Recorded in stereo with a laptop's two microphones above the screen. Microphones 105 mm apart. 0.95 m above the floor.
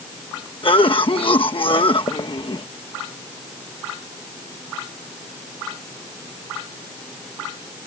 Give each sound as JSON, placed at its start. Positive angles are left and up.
{"t": 0.6, "sound": "a cough", "side_deg": 55}